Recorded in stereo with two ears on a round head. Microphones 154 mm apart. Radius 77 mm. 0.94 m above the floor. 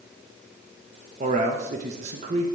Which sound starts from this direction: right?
A man speaking, at 1.2 s.